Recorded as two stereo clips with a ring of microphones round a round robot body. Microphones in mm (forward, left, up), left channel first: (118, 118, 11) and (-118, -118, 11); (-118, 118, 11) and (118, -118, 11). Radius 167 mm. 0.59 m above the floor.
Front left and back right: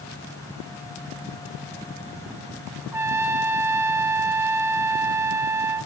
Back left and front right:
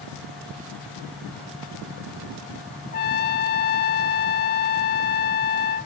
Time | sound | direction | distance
2.9 | a trumpet | 150° left | 0.8 m